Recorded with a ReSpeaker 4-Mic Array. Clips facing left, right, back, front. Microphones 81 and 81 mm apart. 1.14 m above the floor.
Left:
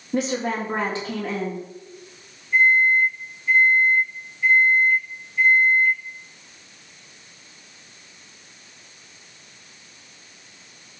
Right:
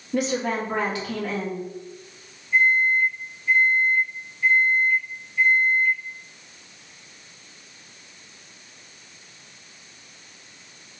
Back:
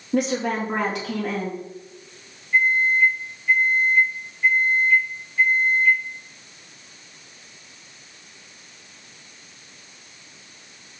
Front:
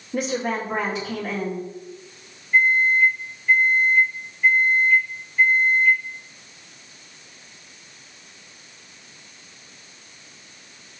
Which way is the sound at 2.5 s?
165° left.